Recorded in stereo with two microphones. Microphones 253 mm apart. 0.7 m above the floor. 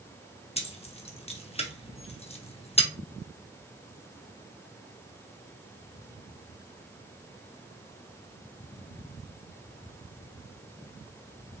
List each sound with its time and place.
0.6 s keys jangling: 25° left (ahead or behind), 0.6 m